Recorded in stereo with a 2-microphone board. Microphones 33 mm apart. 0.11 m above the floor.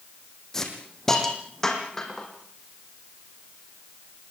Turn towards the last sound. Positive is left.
turn(degrees=15)  # may be behind; listen again after turning